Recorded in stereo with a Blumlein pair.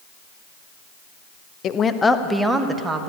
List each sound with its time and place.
1.6 s a woman speaking: 30° left, 0.9 m; by 3.1 s 15° right, 1.8 m